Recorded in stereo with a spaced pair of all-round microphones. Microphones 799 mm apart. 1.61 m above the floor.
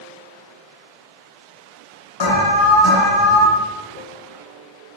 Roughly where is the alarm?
Left.